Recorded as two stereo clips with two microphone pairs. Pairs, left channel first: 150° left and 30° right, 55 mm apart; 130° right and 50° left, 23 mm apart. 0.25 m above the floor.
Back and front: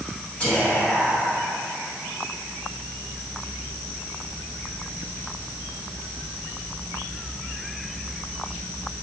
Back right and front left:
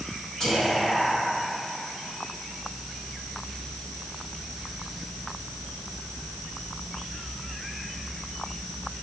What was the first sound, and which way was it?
Whispering, 155° right.